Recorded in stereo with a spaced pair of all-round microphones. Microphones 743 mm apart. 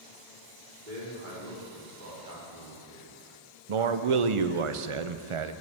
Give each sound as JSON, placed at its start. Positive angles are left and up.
{"t": 0.9, "sound": "a man speaking", "side_deg": -90, "distance_m": 3.5}
{"t": 3.7, "sound": "a man speaking", "side_deg": -50, "distance_m": 0.5}